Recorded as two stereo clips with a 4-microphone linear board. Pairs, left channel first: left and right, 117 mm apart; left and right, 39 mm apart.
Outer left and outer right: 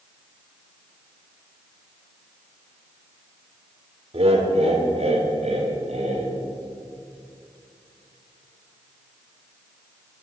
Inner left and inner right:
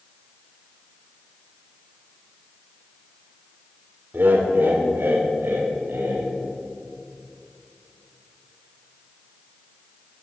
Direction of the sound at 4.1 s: 60° right (ahead or behind).